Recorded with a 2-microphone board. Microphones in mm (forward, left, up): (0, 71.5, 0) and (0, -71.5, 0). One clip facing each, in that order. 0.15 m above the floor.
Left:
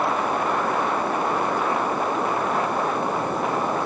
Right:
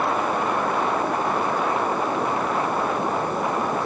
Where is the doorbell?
I don't hear a doorbell.